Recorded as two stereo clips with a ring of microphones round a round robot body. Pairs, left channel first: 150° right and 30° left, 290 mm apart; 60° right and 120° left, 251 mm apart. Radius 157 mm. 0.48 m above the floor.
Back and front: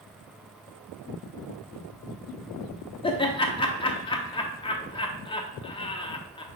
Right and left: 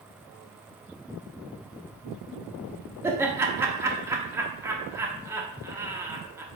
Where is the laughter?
Straight behind, 0.7 m.